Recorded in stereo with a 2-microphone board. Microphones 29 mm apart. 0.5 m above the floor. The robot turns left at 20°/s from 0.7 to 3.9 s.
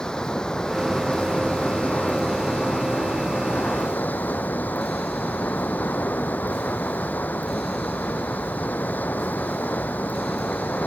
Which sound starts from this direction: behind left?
Running water, at 0.0 s.